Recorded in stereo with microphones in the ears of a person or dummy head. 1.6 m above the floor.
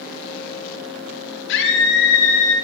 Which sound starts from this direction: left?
A scream, at 1.5 s.